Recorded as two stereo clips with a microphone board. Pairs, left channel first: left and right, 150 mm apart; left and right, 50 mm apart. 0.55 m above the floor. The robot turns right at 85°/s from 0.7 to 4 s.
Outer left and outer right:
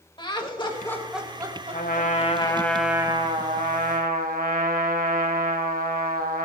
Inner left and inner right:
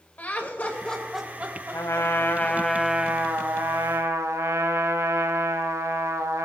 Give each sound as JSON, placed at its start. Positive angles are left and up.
{"t": 0.2, "sound": "laughter", "side_deg": 30, "distance_m": 2.5}
{"t": 1.7, "sound": "a trumpet", "azimuth_deg": 90, "distance_m": 1.8}